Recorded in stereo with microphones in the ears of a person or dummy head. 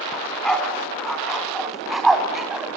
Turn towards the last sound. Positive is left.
turn(degrees=0)  # may be behind; listen again after turning